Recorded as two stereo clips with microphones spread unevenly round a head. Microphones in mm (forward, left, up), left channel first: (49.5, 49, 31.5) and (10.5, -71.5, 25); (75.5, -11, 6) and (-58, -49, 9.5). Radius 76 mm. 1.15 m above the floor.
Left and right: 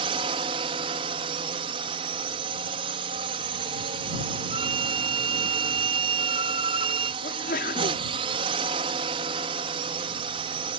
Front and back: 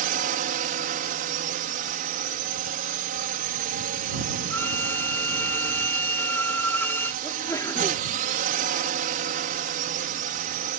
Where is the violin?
60° right.